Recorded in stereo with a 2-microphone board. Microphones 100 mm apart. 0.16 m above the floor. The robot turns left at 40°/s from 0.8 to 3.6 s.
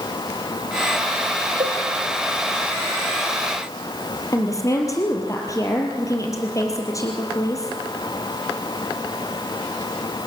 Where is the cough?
I don't hear a cough.